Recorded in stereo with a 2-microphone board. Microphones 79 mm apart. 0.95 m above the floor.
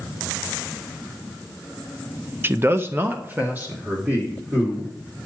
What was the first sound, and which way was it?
A man speaking, 30° right (ahead or behind).